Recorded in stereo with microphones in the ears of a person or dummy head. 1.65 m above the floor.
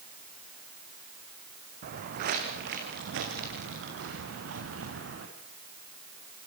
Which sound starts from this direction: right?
Footsteps, at 1.8 s.